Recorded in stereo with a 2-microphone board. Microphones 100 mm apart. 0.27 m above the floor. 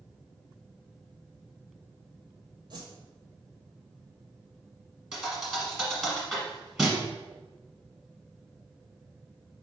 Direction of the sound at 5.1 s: 5° right (ahead or behind).